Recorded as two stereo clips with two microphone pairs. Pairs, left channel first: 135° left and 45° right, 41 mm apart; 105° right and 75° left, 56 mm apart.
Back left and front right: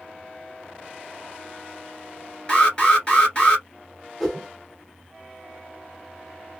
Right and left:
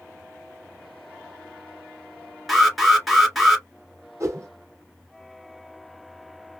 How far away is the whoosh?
About 1.2 m.